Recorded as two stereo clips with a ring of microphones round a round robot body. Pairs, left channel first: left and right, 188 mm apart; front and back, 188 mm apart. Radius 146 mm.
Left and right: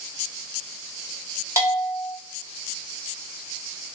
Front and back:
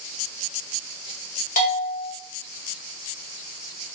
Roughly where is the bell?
Ahead.